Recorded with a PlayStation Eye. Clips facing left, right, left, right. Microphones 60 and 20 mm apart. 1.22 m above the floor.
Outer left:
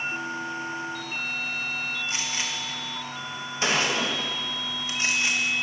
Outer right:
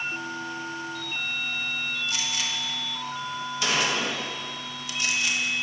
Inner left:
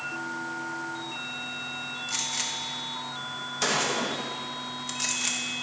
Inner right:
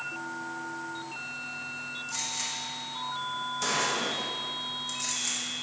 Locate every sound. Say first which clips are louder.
2.1 s a gunshot: even, inner left 4 dB; 30° left (ahead or behind), 1.4 m